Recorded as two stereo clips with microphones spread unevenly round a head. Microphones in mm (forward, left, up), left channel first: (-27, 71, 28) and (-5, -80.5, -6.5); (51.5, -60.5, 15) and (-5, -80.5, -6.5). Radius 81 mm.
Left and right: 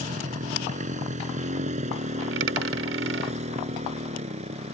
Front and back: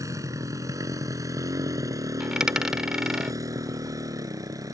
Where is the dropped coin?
70° right.